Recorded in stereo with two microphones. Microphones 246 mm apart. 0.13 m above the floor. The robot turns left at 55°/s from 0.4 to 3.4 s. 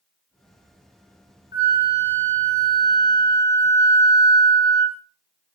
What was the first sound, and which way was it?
A flute, 120° left.